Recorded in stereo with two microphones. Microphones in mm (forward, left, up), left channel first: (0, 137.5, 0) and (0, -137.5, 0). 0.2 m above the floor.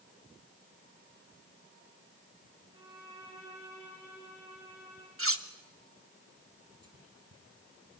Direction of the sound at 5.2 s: 50° right (ahead or behind).